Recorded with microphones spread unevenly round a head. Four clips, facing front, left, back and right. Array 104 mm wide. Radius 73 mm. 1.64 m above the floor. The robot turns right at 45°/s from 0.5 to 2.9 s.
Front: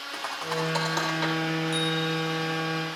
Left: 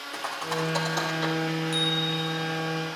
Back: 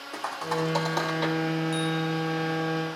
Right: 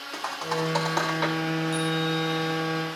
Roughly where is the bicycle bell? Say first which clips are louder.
Right 3 dB, even; ahead left.